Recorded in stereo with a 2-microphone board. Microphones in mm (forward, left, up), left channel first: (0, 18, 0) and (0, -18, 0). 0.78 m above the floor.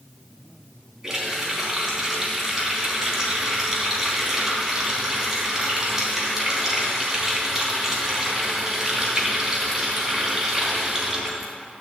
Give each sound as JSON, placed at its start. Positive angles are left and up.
{"t": 1.0, "sound": "a running tap", "side_deg": -10, "distance_m": 4.0}